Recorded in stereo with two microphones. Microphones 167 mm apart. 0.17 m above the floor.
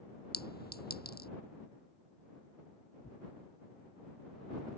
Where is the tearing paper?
40° left (ahead or behind).